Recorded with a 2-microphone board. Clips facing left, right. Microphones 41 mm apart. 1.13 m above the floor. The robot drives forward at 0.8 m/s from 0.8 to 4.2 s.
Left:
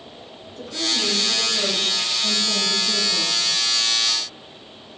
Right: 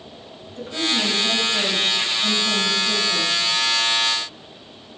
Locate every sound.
0.6 s a woman speaking: 45° right (ahead or behind), 7.5 m; by 3.4 s 35° right (ahead or behind), 9 m